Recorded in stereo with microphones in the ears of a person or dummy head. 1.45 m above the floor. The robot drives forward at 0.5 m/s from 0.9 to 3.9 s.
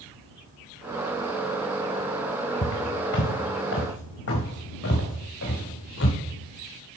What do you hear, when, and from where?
2.6 s footsteps: 65° left (ahead or behind), 4 m; by 6.2 s 60° left (ahead or behind), 5 m